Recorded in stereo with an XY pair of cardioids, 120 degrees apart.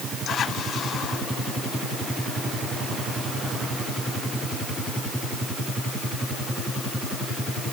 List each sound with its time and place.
Only background noise.